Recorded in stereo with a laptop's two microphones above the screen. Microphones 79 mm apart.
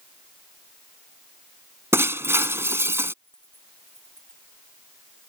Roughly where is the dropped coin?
Left.